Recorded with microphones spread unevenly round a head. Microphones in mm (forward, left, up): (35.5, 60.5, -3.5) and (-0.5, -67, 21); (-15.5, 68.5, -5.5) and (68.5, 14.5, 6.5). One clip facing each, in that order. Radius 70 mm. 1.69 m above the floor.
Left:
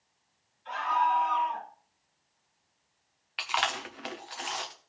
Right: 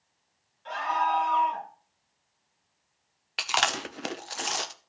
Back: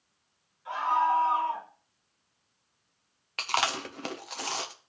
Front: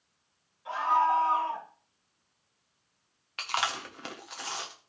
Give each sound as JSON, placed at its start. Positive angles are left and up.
{"t": 0.7, "sound": "a scream", "azimuth_deg": -100, "distance_m": 7.5}
{"t": 3.4, "sound": "chewing", "azimuth_deg": -150, "distance_m": 0.7}